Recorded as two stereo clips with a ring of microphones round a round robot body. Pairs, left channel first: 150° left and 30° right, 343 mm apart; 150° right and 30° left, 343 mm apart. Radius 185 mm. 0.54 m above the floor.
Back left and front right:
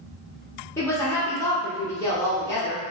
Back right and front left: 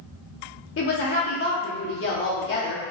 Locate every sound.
0.8 s a woman speaking: 130° right, 0.9 m